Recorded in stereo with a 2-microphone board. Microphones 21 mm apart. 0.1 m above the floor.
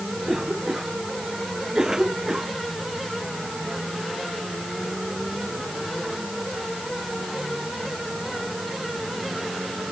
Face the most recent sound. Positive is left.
turn(degrees=-30)  # may be behind; listen again after turning